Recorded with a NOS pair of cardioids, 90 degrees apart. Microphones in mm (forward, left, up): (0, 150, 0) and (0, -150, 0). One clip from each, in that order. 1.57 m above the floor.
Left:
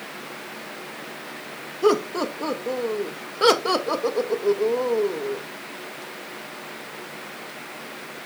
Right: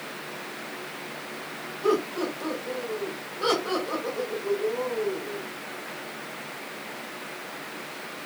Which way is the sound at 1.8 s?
70° left.